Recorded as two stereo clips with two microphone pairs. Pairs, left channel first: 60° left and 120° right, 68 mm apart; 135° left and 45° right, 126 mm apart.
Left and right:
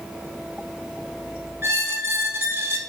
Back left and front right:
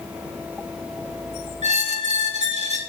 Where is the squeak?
65° right, 1.2 m.